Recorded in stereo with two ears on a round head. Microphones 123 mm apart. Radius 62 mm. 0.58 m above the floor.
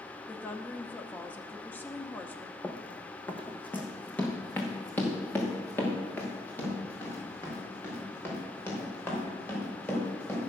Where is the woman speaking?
15° left (ahead or behind), 0.9 m.